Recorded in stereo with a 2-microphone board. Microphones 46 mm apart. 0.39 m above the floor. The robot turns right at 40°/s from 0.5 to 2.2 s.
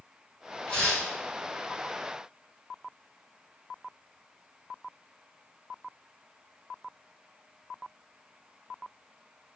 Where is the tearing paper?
20° left (ahead or behind), 2.0 m; by 1.1 s 5° left (ahead or behind), 2.0 m.